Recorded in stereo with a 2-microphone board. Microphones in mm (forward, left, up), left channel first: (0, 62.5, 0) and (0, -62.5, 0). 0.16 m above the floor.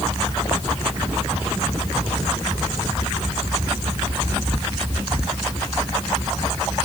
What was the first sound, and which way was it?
Only background noise.